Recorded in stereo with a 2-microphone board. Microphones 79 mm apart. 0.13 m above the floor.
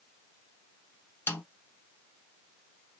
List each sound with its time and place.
1.3 s a snare drum: 30° left (ahead or behind), 1.1 m